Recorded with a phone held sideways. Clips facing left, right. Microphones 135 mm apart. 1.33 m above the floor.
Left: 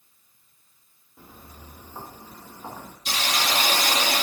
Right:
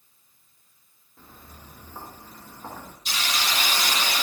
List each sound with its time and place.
1.2 s footsteps: 15° left (ahead or behind), 7.5 m
3.0 s a hiss: 80° left, 3 m